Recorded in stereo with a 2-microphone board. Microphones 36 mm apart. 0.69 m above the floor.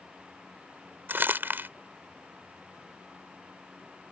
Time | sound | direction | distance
1.1 | crumpling | 75° right (ahead or behind) | ?